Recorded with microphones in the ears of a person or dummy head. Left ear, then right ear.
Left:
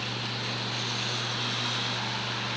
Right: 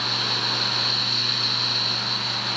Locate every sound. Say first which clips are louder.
0.0 s a fan: right 10 dB; 75° right (ahead or behind)